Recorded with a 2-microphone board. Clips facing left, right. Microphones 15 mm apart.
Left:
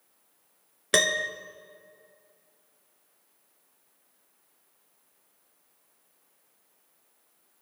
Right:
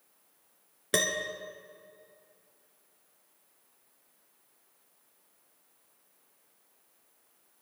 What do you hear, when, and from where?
0.9 s a piano: 30° left (ahead or behind), 0.9 m